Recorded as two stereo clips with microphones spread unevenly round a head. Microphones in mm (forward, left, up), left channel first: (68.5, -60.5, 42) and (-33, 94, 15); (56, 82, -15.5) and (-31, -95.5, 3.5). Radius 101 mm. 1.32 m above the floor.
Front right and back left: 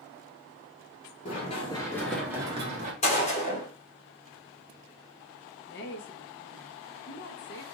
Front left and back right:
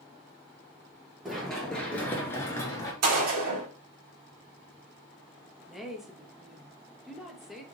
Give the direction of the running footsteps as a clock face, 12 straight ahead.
1 o'clock.